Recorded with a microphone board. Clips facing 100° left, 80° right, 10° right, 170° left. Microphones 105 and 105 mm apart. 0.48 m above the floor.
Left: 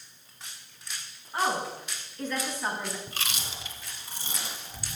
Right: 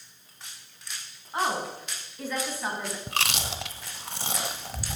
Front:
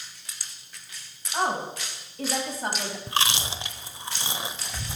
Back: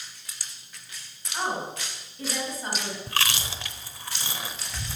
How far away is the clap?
No clap in this recording.